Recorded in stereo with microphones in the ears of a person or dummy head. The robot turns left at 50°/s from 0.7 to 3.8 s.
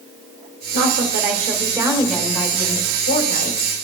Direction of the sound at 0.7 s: 110° right.